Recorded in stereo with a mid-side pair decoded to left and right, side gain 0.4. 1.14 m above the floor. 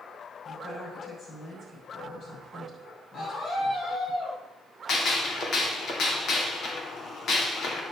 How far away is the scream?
About 8.5 m.